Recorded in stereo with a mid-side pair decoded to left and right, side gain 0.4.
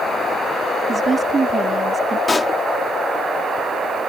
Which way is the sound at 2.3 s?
30° left.